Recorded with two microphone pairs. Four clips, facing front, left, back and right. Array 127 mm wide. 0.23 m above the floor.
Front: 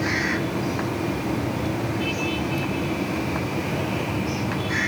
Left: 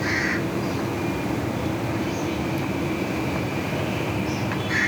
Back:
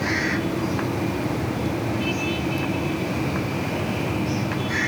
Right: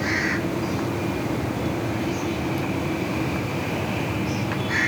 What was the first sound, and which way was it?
Only background noise.